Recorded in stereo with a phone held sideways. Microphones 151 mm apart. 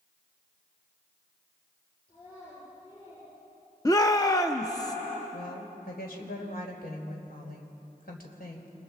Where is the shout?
25° left (ahead or behind), 0.7 m.